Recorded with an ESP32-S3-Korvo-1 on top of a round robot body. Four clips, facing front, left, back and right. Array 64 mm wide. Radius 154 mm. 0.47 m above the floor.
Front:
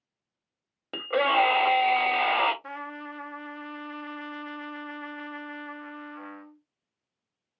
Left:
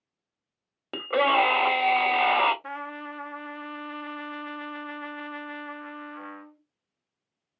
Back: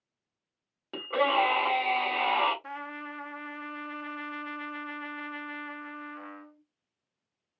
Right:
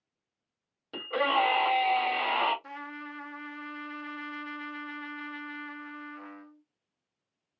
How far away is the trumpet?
About 0.9 m.